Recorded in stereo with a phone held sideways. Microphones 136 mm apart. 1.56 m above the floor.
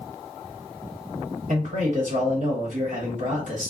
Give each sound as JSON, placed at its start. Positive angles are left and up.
{"t": 1.5, "sound": "a man speaking", "side_deg": -65, "distance_m": 1.3}